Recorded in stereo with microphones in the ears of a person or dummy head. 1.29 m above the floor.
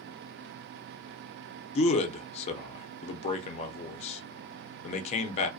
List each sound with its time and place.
1.8 s a man speaking: 35° left (ahead or behind), 0.6 m